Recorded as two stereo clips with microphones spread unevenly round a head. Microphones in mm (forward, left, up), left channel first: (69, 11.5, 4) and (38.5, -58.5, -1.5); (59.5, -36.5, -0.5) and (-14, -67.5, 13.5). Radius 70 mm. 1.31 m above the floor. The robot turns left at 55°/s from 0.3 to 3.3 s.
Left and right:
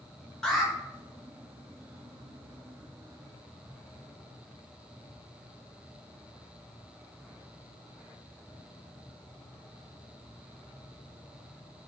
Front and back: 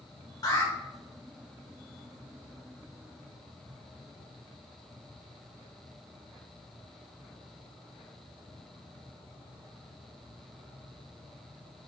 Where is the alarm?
15° right, 3.5 m; by 0.7 s 35° right, 3.5 m.